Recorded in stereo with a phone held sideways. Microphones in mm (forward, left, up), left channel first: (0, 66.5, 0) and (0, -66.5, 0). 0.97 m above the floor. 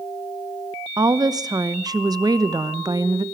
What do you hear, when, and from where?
1.0 s a woman speaking: 30° right (ahead or behind), 0.9 m